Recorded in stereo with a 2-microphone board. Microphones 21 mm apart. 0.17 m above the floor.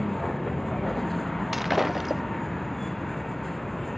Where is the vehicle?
10° left (ahead or behind).